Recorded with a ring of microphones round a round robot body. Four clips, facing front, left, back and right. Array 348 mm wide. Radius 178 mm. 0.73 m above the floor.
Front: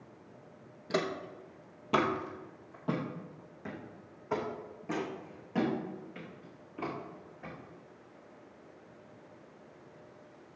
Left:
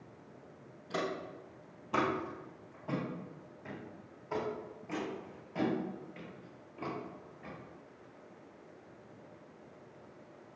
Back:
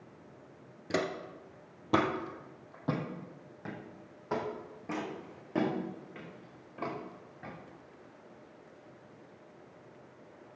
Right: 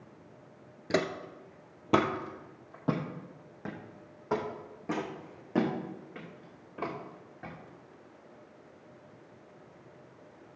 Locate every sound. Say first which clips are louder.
0.9 s footsteps: right 6 dB, even; 95° right, 0.9 m; by 7.5 s 100° right, 4.5 m